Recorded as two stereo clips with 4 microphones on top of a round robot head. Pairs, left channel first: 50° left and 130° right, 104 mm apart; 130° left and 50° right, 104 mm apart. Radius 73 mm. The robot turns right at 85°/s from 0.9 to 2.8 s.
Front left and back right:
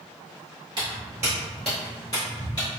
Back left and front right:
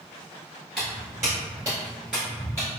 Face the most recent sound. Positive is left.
turn(degrees=105)